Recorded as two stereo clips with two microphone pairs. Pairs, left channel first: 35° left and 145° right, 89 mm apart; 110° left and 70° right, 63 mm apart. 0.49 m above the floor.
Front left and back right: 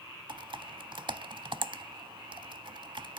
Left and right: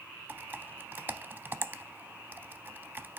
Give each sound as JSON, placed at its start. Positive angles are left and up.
{"t": 0.3, "sound": "typing on a keyboard", "azimuth_deg": -130, "distance_m": 0.5}